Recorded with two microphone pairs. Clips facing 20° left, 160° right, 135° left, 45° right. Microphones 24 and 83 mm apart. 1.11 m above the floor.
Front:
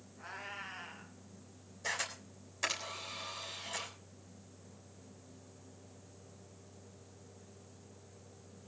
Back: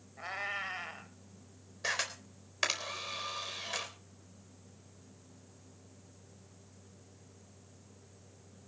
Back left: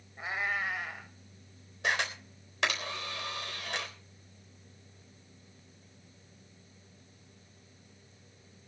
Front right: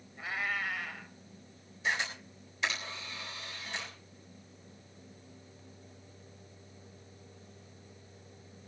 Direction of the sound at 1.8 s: 155° left.